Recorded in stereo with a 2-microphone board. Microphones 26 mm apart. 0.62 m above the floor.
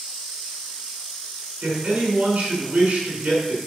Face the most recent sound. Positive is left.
turn(degrees=-50)  # may be behind; listen again after turning